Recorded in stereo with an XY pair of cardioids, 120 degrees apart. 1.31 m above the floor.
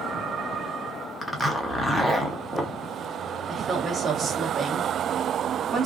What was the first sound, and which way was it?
A zipper, 5° left.